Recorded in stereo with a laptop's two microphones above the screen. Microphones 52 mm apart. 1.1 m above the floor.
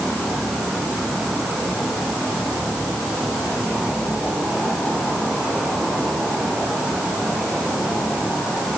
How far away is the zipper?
No zipper in this recording.